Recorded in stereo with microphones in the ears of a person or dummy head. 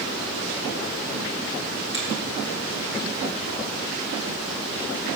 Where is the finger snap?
25° left (ahead or behind), 2.5 m.